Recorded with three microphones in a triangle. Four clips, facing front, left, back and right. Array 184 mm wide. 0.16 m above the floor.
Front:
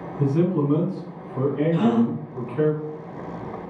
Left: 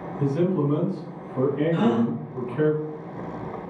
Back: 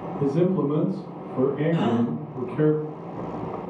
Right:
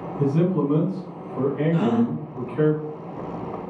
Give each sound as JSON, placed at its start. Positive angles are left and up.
{"t": 0.2, "sound": "a man speaking", "azimuth_deg": -65, "distance_m": 1.4}
{"t": 1.7, "sound": "a gasp", "azimuth_deg": 70, "distance_m": 1.2}